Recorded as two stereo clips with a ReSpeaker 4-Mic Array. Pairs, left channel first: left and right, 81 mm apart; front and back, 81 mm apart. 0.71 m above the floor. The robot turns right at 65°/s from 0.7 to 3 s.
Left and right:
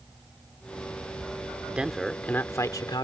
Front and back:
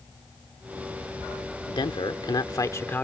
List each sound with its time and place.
1.7 s a man speaking: 20° right; by 3.0 s 65° left